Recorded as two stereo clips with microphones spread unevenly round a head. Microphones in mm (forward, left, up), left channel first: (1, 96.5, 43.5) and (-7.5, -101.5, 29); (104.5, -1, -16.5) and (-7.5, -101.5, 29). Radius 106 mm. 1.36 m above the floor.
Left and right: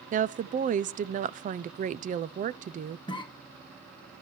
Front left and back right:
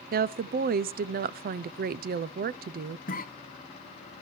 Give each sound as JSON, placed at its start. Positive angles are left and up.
{"t": 0.1, "sound": "a woman speaking", "azimuth_deg": -120, "distance_m": 0.5}
{"t": 3.1, "sound": "a cough", "azimuth_deg": 20, "distance_m": 1.9}